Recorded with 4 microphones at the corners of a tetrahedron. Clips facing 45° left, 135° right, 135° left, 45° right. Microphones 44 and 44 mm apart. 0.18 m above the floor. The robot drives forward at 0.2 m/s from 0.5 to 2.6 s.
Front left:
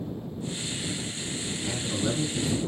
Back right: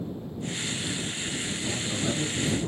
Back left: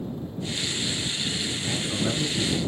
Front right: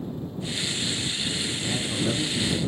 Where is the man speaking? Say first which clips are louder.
Front left 2 dB, front right 1 dB; 95° left, 1.9 m; by 2.6 s 105° left, 2.0 m.